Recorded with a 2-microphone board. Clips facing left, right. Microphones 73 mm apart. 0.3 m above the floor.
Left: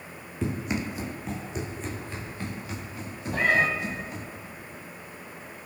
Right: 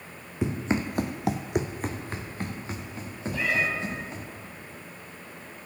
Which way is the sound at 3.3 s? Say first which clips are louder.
Left 4 dB; 50° left (ahead or behind).